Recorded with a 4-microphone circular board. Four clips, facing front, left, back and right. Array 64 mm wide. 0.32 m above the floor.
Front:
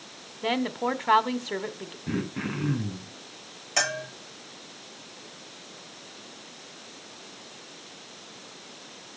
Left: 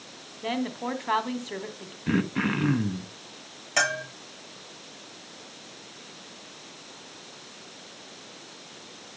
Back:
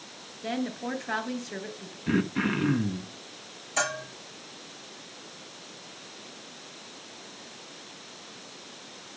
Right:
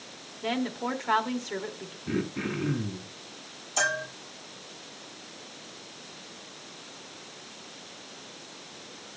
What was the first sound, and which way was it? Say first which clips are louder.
A woman speaking: even, front 5 dB; 5° left.